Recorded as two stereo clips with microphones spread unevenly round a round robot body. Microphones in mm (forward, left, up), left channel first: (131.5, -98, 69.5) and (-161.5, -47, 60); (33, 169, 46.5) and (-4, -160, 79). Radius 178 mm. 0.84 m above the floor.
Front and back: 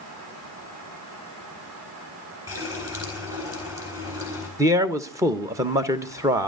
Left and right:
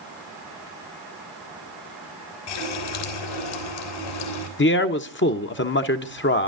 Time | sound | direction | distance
2.5 | a running tap | 90° left | 4 m
4.6 | a man speaking | 100° left | 1.1 m